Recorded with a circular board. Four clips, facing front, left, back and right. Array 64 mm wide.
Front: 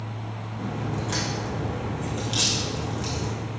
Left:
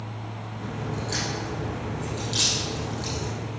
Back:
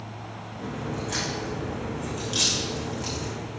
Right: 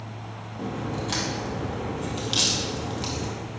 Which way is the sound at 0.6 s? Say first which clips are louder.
Right 3 dB, front 1 dB; 80° right.